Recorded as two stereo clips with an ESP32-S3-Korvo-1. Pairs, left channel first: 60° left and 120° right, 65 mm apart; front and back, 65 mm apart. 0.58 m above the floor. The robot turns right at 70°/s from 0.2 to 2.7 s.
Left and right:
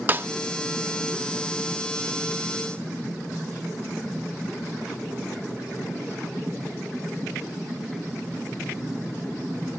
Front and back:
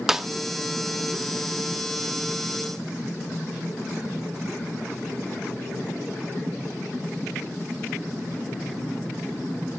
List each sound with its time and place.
0.1 s a snare drum: 100° right, 0.5 m; by 0.3 s 95° right, 0.5 m